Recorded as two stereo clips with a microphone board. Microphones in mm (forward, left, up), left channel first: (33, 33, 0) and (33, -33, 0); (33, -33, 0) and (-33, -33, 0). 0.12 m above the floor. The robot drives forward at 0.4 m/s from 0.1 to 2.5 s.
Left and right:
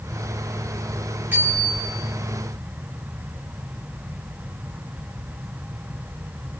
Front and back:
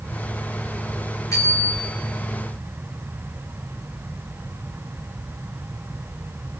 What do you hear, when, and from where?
1.3 s a bicycle bell: 30° right, 6.5 m